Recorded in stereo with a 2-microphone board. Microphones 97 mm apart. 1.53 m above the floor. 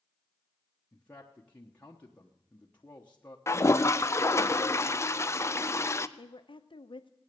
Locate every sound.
0.9 s a man speaking: 15° left (ahead or behind), 1.1 m
3.5 s a toilet flushing: 30° left (ahead or behind), 0.5 m
6.2 s a woman speaking: 60° left (ahead or behind), 0.8 m